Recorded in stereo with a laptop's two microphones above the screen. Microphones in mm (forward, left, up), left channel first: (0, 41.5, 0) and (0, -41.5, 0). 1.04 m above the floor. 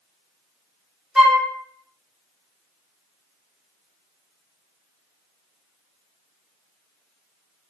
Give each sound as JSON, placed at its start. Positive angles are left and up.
{"t": 1.1, "sound": "a flute", "side_deg": -5, "distance_m": 0.8}